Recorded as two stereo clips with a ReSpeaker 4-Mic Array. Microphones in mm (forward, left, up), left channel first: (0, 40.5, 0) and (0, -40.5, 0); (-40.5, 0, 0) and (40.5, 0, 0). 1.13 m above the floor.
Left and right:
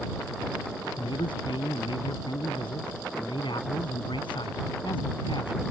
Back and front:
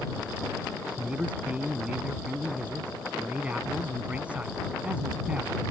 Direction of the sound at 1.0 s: 75° left.